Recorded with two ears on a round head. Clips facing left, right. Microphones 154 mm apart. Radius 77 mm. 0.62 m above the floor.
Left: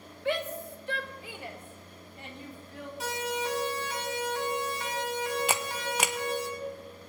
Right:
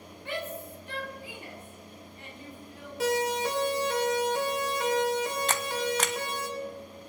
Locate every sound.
0.2 s a shout: 60° left (ahead or behind), 2.5 m; by 2.9 s 50° left (ahead or behind), 5.5 m
3.0 s a siren: 55° right (ahead or behind), 4 m; by 6.5 s 65° right (ahead or behind), 6 m
5.5 s a camera shutter: 10° left (ahead or behind), 0.6 m